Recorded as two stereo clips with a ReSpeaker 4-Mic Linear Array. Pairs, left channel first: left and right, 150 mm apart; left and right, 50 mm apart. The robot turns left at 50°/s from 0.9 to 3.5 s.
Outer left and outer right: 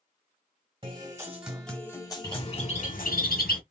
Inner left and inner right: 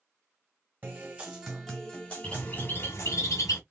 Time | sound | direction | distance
0.8 | a guitar | 145° right | 1.4 m
2.2 | a bird | 155° left | 1.4 m